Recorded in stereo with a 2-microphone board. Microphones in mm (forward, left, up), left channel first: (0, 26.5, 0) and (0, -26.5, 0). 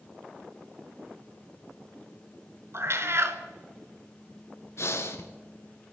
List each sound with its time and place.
2.7 s a cat meowing: 50° right (ahead or behind), 1.2 m
4.8 s breathing: 60° left (ahead or behind), 1.7 m